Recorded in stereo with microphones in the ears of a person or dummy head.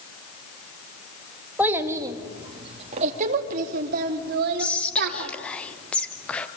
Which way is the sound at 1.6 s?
10° right (ahead or behind).